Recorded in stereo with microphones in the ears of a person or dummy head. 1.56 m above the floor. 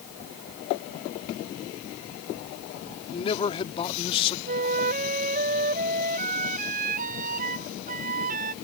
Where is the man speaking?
30° left (ahead or behind).